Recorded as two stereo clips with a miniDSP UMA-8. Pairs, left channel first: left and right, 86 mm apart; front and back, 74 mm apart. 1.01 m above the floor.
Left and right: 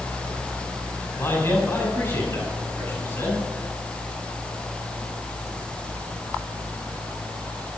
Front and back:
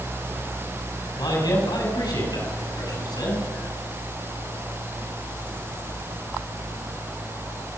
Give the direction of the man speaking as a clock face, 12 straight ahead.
11 o'clock.